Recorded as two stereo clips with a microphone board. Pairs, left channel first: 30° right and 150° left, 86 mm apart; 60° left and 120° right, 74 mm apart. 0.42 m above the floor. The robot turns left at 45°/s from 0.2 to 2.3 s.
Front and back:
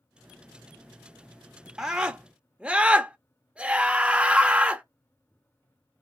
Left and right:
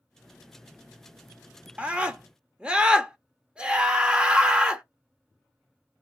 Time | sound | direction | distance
1.8 | a scream | 140° right | 0.8 m